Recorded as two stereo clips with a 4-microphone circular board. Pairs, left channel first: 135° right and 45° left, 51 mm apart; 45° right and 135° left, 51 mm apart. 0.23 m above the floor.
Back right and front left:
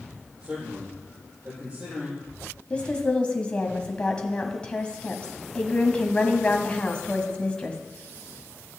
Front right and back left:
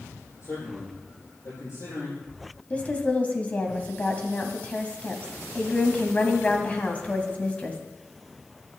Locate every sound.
0.4 s a man speaking: 25° right, 8.5 m
2.7 s a woman speaking: 85° right, 1.9 m